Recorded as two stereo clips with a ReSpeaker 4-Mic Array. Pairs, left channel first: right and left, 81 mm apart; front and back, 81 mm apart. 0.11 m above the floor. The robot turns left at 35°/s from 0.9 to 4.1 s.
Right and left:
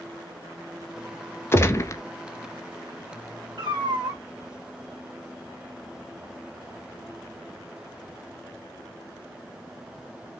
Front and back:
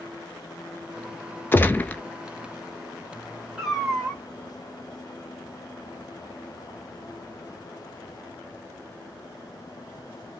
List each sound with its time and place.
1.5 s a gunshot: 50° right, 0.6 m; by 2.0 s 65° right, 0.6 m
3.6 s a cat meowing: 95° left, 1.5 m; by 4.2 s 80° left, 1.5 m